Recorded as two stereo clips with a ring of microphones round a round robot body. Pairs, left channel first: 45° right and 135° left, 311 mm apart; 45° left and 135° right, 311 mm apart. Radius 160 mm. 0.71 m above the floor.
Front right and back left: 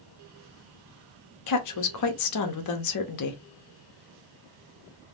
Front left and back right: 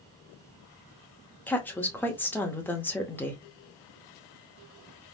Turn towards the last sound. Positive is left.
turn(degrees=-40)